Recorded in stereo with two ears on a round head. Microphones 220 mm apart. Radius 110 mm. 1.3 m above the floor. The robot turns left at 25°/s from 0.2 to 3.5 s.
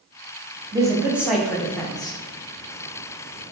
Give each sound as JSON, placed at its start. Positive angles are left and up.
{"t": 0.7, "sound": "a man speaking", "azimuth_deg": -165, "distance_m": 0.6}